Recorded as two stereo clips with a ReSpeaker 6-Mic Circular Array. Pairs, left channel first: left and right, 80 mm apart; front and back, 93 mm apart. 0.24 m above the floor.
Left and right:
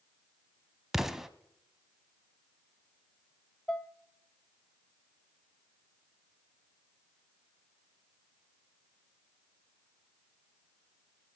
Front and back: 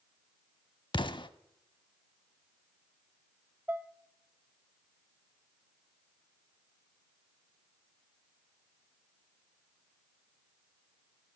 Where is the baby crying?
No baby crying in this recording.